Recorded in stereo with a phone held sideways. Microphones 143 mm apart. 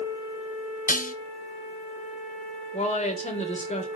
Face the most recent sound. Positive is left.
turn(degrees=50)  # may be behind; listen again after turning